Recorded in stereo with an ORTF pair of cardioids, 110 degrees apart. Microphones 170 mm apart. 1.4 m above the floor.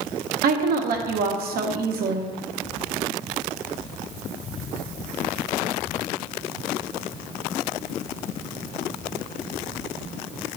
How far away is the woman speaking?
About 1.0 m.